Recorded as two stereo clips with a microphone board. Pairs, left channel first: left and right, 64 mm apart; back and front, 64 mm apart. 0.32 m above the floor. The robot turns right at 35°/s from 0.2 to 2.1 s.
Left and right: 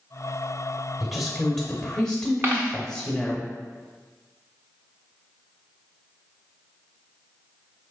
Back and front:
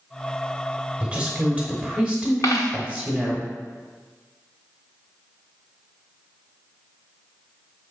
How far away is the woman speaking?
About 0.9 m.